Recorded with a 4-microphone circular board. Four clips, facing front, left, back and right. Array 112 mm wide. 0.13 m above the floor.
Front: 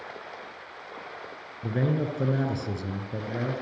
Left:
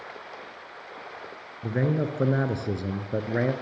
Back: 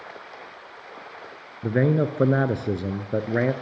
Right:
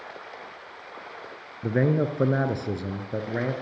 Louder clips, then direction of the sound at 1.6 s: Right 3 dB, back 6 dB; 150° right.